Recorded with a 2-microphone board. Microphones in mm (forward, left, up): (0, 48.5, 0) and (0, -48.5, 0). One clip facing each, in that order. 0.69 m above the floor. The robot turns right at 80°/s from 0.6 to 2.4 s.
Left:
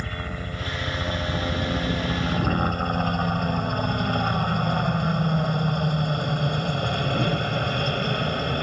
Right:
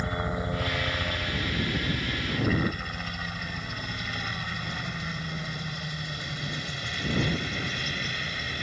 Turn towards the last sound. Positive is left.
turn(degrees=125)